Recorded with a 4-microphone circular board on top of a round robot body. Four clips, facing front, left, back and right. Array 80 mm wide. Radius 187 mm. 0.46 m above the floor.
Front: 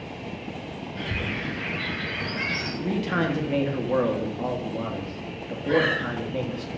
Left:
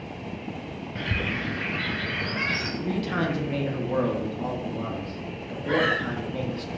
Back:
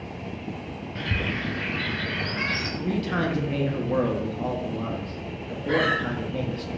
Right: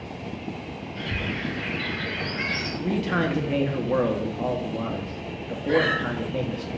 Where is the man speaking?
60° right, 0.9 m.